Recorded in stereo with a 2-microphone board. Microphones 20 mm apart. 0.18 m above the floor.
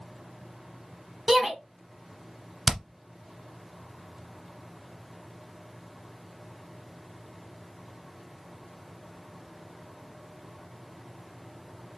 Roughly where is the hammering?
Centre.